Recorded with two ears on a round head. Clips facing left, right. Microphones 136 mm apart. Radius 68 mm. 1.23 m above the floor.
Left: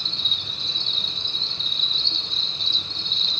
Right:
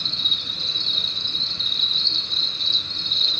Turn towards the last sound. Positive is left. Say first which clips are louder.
# right 1 dB
turn(degrees=-65)  # may be behind; listen again after turning